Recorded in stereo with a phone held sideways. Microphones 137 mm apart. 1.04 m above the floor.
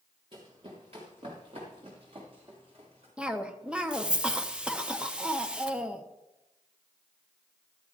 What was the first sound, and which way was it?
Running footsteps, 40° right (ahead or behind).